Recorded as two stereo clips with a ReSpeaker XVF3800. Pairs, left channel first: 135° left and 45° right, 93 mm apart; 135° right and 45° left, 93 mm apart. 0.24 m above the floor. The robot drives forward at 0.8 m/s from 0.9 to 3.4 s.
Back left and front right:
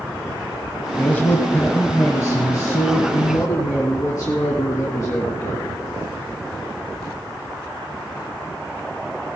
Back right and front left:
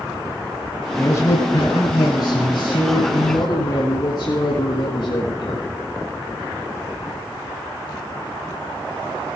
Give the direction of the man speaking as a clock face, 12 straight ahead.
5 o'clock.